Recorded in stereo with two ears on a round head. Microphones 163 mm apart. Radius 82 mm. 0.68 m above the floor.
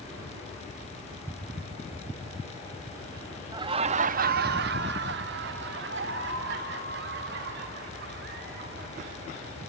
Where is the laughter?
20° right (ahead or behind), 0.7 m; by 9.6 s 60° right (ahead or behind), 3.5 m.